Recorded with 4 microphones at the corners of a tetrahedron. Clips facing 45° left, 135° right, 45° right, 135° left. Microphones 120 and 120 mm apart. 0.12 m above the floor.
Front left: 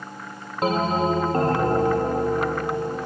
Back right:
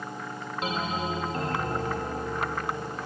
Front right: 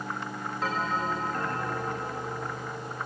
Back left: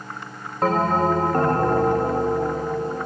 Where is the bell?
95° left.